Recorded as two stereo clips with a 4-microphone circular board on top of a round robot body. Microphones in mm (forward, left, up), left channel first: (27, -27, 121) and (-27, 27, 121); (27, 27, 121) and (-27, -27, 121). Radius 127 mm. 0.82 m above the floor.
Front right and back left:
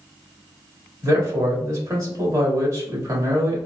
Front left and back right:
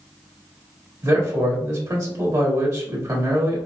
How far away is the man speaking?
About 2 m.